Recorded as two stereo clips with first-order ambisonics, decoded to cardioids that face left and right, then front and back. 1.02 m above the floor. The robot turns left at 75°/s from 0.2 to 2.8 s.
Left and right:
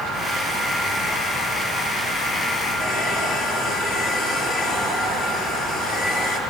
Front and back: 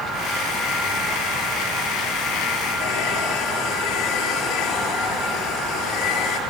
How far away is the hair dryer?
About 6 m.